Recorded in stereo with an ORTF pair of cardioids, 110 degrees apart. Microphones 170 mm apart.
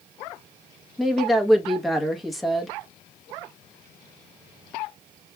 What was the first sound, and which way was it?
A woman speaking, straight ahead.